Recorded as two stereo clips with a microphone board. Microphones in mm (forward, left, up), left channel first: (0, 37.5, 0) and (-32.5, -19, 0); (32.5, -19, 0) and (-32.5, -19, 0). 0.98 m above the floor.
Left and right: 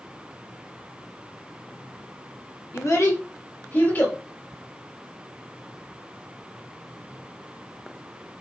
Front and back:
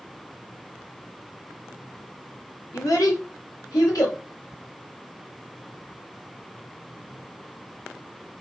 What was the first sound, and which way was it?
A child speaking, 25° left.